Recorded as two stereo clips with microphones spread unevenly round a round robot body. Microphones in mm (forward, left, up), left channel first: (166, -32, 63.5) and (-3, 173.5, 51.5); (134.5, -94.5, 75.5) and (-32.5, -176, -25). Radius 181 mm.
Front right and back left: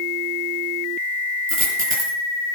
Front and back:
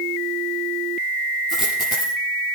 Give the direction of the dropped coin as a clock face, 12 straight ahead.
9 o'clock.